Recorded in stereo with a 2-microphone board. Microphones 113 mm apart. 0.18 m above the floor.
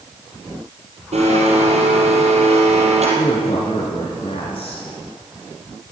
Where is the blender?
70° right (ahead or behind), 4.5 m.